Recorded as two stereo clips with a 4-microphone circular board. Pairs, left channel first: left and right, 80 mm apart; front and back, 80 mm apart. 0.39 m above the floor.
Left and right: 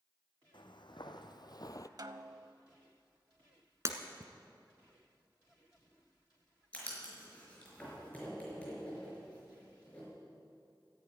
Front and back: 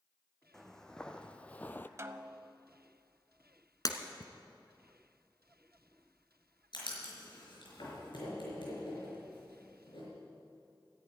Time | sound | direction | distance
0.5 | footsteps | 85° left | 1.3 m
2.0 | a snare drum | 125° right | 0.7 m
3.9 | breaking glass | 40° right | 1.3 m
6.7 | writing | 15° left | 5 m